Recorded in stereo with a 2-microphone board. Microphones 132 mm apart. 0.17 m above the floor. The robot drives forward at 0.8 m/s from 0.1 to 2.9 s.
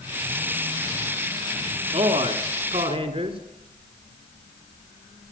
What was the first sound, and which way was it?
A man speaking, 45° right (ahead or behind).